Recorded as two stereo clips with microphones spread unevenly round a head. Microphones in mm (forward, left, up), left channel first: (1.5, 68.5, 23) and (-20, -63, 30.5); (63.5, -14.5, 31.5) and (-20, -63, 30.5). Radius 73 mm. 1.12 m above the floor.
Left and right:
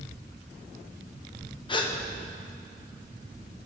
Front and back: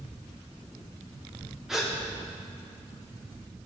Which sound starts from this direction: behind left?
A gasp, at 1.7 s.